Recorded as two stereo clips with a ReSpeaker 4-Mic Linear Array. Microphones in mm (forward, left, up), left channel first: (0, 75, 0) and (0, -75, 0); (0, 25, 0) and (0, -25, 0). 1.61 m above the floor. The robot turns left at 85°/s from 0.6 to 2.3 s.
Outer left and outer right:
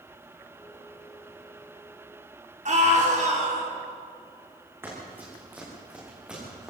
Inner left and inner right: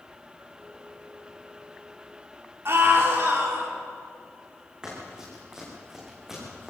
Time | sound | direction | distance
2.6 | a scream | 50° right (ahead or behind) | 4.5 m
4.8 | running footsteps | 15° right (ahead or behind) | 8.5 m